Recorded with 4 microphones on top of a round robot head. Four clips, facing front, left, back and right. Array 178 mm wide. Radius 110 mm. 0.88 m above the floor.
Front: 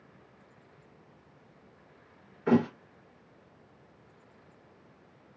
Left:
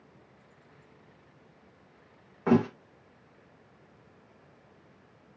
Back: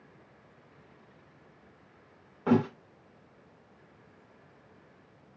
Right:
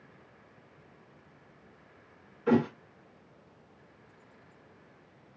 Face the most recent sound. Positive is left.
turn(degrees=125)